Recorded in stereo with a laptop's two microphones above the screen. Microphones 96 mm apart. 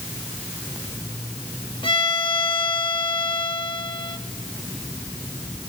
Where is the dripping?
No dripping in this recording.